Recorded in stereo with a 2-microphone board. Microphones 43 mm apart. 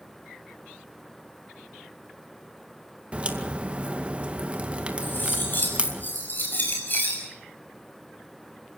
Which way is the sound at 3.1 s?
30° right (ahead or behind).